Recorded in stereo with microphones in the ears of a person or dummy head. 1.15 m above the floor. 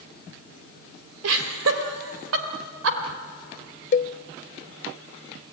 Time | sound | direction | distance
1.2 | laughter | 80° right | 2.5 m
3.9 | a cowbell | 40° left (ahead or behind) | 0.5 m